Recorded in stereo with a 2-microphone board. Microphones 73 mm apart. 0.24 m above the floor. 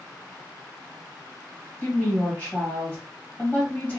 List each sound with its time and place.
1.8 s a woman speaking: 20° left (ahead or behind), 1.4 m